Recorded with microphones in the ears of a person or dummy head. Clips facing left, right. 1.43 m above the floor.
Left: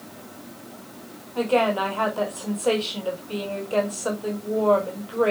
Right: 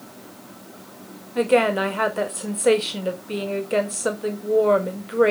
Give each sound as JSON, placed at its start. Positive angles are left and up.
{"t": 1.4, "sound": "a woman speaking", "side_deg": -30, "distance_m": 1.6}